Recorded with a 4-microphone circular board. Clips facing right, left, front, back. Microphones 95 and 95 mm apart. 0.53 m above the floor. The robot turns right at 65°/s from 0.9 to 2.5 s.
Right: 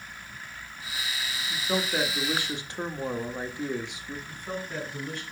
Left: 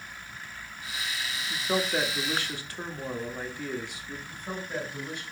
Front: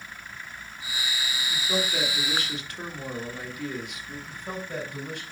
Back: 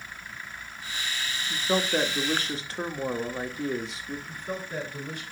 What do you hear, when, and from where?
1.5 s a man speaking: 150° left, 1.2 m; by 4.2 s 145° right, 1.2 m
4.3 s a man speaking: 15° left, 5 m